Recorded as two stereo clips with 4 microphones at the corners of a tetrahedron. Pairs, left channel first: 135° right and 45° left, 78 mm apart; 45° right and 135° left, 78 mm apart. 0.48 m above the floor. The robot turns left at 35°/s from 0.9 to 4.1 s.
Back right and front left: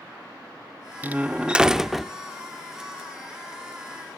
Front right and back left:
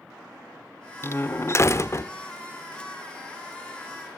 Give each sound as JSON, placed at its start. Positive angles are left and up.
{"t": 1.0, "sound": "a door slam", "azimuth_deg": -10, "distance_m": 0.7}